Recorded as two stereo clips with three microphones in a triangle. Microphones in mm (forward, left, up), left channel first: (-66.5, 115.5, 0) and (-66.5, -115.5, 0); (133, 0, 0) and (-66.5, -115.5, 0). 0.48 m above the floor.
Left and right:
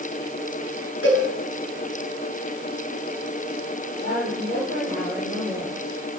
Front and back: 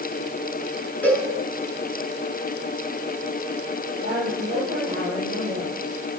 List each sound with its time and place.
1.0 s a cowbell: 115° left, 7 m
4.0 s a woman speaking: 45° left, 10 m